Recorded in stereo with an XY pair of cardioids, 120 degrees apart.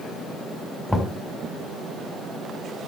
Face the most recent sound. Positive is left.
turn(degrees=10)